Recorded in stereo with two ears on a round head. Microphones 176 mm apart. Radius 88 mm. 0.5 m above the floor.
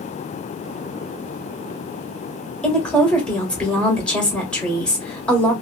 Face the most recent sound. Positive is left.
turn(degrees=5)  # may be behind; listen again after turning